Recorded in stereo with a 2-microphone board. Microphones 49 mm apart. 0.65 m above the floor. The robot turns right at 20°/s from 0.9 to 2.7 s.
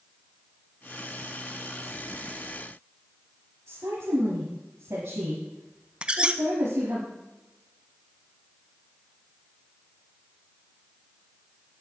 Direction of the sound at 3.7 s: 75° right (ahead or behind).